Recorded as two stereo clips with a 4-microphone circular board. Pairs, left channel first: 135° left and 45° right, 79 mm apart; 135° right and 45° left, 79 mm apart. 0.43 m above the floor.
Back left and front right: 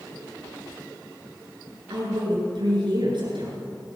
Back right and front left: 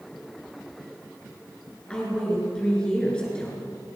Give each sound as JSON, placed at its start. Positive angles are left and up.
{"t": 1.9, "sound": "a woman speaking", "azimuth_deg": -55, "distance_m": 6.5}